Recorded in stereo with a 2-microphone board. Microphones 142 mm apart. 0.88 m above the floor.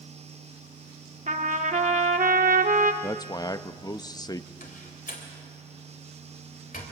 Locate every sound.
1.3 s a trumpet: 60° right (ahead or behind), 1.2 m
3.0 s a man speaking: 25° left (ahead or behind), 0.6 m
4.6 s a door slam: 85° left, 3 m